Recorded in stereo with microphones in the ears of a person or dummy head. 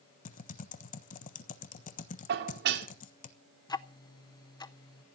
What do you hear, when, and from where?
0.2 s typing on a keyboard: 40° left (ahead or behind), 1.2 m
2.3 s dishes clattering: 60° right (ahead or behind), 2 m
3.7 s ticking: 20° left (ahead or behind), 0.6 m